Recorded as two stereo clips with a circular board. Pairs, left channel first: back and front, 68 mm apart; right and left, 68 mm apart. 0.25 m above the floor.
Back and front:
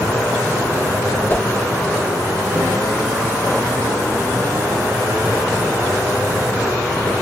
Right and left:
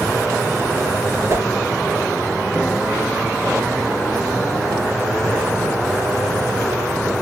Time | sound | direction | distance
1.3 | a whoosh | 125° left | 1.2 m